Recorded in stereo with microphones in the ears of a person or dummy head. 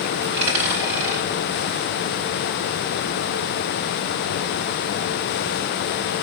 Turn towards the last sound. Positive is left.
turn(degrees=-40)  # may be behind; listen again after turning